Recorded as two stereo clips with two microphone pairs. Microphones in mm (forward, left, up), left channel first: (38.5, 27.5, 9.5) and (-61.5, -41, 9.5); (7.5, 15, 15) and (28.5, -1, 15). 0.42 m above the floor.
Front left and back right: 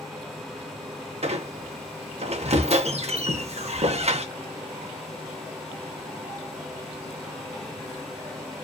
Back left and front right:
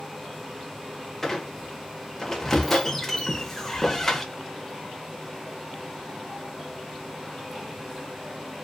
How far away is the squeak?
About 0.6 m.